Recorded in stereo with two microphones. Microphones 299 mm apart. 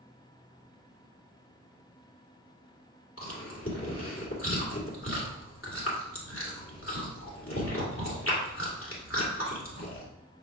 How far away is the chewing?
About 1.9 m.